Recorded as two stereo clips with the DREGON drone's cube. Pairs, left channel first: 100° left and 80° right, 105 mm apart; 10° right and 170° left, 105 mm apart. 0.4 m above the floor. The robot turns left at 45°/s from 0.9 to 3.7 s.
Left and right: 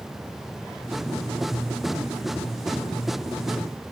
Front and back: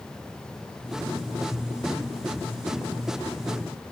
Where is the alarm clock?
I don't hear an alarm clock.